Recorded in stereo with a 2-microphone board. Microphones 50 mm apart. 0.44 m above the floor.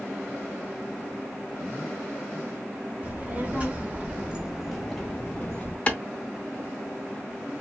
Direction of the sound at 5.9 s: 25° left (ahead or behind).